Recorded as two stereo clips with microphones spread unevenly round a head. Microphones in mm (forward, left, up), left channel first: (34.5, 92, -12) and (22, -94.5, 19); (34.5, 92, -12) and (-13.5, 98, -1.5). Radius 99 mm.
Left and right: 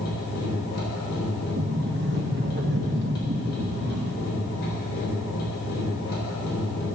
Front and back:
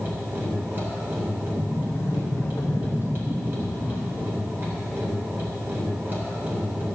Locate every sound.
0.0 s a machine running: 130° left, 4 m
1.6 s a sliding door: 65° right, 1.9 m